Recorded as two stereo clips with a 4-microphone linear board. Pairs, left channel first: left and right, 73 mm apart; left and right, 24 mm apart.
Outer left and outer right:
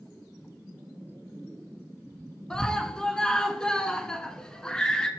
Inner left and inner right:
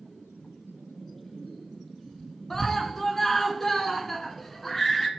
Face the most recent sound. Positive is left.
turn(degrees=10)  # may be behind; listen again after turning